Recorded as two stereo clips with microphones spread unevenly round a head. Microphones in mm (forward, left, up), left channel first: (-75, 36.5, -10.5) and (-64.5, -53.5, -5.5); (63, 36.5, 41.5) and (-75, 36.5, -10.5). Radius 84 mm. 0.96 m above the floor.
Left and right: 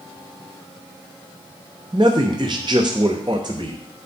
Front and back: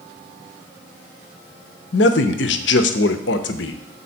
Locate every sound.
1.9 s a man speaking: 20° right, 0.7 m